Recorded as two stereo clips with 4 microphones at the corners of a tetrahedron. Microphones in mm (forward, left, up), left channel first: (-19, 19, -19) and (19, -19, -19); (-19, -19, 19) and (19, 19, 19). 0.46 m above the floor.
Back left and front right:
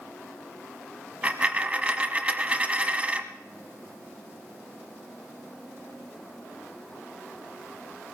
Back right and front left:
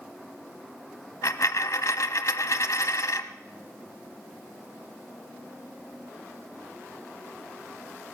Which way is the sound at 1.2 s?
110° right.